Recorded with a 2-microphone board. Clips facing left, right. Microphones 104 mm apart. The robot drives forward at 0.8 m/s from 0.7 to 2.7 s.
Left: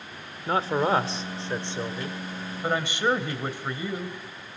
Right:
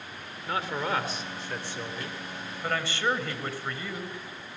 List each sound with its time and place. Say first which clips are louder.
0.5 s a man speaking: left 7 dB; 35° left (ahead or behind), 1.6 m; by 4.2 s 20° left (ahead or behind), 2.5 m